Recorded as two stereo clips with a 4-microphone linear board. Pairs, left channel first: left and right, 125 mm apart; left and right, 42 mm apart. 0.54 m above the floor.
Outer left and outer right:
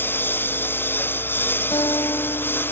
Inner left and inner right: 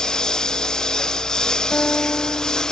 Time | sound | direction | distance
0.0 | a lawn mower | 15° left (ahead or behind) | ?
1.7 | a guitar | 35° left (ahead or behind) | ?